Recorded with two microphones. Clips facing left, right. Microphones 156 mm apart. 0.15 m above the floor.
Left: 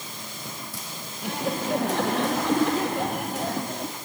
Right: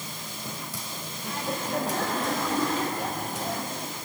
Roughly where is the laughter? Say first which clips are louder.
Left 5 dB; left.